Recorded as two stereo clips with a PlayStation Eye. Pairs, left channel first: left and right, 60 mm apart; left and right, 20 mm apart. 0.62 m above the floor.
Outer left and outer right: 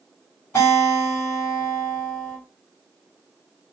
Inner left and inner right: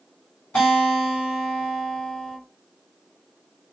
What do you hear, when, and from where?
0.6 s a guitar: 50° left (ahead or behind), 1.9 m